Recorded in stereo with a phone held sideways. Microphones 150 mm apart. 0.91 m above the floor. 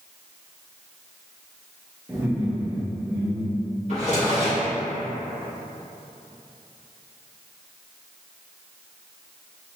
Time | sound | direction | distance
2.1 | laughter | 10° right (ahead or behind) | 0.6 m
3.9 | a drawer | 50° right (ahead or behind) | 1.6 m